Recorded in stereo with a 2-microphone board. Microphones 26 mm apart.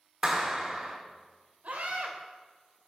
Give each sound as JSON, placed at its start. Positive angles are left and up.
{"t": 0.2, "sound": "a clap", "side_deg": -35, "distance_m": 3.0}
{"t": 1.6, "sound": "a scream", "side_deg": -80, "distance_m": 3.5}